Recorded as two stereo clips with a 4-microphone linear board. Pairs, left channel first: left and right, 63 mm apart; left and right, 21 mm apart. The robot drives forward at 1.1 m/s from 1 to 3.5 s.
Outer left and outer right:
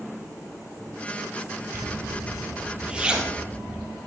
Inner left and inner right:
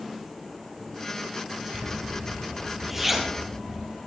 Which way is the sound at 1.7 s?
30° right (ahead or behind).